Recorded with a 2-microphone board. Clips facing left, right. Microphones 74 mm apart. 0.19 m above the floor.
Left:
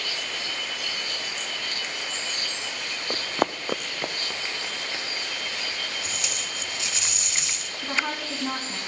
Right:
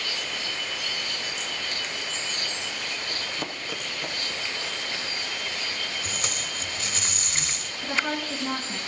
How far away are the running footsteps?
About 0.6 m.